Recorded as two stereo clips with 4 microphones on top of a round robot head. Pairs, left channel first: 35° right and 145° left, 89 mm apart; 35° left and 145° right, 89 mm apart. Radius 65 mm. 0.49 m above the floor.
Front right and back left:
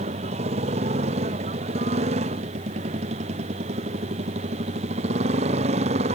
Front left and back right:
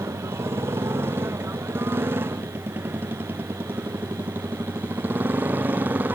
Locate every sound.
0.0 s a motorcycle: 150° left; by 6.2 s 145° left